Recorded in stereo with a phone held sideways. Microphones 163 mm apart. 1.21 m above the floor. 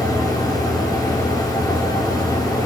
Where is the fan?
25° left (ahead or behind), 4.5 m.